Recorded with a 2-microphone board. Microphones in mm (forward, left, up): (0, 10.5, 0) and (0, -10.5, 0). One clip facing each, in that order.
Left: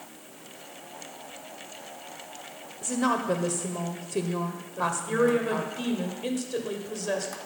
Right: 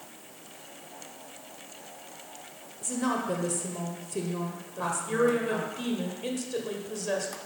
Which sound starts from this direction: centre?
A woman speaking, at 4.8 s.